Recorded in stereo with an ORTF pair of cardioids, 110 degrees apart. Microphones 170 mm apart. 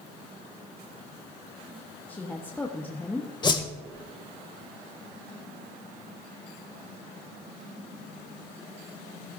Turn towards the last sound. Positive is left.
turn(degrees=25)